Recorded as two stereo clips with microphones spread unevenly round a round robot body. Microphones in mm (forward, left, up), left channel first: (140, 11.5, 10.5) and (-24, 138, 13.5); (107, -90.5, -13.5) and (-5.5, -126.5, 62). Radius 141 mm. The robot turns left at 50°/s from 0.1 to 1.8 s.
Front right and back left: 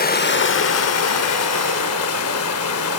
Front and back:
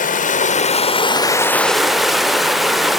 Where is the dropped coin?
I don't hear a dropped coin.